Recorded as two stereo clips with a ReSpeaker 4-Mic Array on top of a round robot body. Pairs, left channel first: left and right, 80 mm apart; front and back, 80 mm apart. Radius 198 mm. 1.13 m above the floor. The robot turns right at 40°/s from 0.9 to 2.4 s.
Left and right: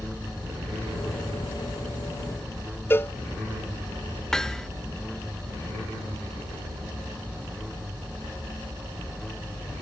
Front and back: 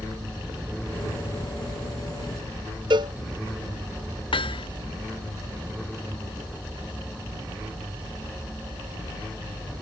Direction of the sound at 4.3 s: 5° left.